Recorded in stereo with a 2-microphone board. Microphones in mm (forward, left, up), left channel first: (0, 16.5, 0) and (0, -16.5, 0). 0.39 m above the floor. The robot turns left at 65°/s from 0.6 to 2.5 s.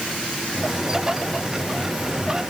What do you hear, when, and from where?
Only background noise.